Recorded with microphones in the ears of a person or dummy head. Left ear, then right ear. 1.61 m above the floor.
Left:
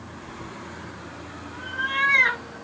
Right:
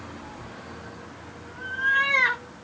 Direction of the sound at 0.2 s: 55° left (ahead or behind).